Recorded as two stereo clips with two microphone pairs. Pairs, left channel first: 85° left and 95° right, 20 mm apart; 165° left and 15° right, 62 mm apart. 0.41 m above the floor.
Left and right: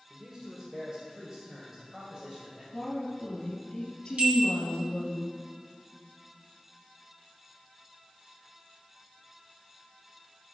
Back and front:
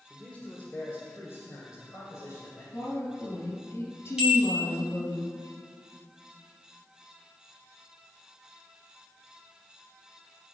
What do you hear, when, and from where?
0.1 s a man speaking: 130° right, 1.4 m; by 2.6 s 160° right, 2.5 m
2.7 s a woman speaking: 120° left, 3.5 m
4.2 s a bell: 95° right, 3 m